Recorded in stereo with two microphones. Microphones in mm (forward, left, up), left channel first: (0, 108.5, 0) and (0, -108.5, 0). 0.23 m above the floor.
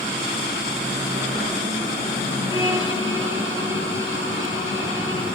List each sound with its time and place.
2.5 s a violin: 70° right (ahead or behind), 5 m